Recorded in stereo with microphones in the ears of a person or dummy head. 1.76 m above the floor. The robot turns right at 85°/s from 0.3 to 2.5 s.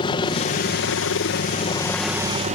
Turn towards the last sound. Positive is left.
turn(degrees=-145)